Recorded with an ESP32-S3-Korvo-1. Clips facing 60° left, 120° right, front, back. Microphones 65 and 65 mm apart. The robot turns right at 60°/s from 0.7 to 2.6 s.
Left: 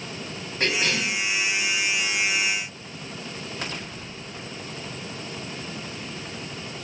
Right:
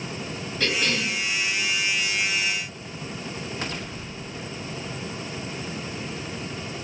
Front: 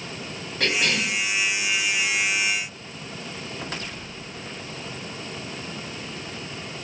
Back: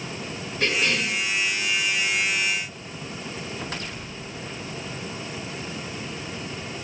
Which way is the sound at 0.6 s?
10° left.